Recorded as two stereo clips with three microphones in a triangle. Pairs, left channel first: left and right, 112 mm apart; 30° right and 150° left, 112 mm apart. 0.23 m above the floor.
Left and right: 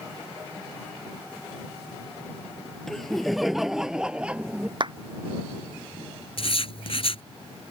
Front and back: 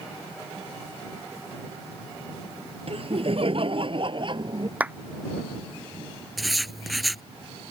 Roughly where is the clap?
Behind right.